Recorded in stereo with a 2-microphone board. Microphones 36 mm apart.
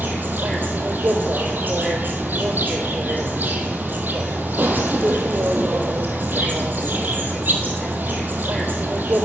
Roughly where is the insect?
Right.